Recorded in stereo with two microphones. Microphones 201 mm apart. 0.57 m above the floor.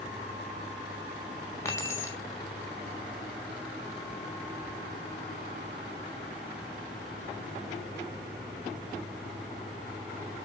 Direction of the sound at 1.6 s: 15° left (ahead or behind).